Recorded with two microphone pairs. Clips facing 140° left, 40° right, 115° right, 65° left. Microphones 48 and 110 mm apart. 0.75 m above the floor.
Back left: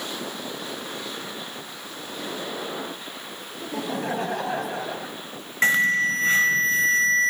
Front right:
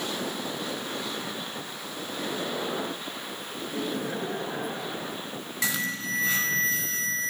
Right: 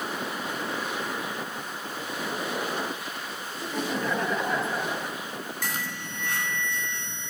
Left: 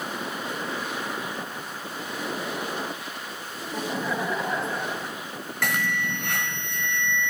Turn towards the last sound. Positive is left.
turn(degrees=90)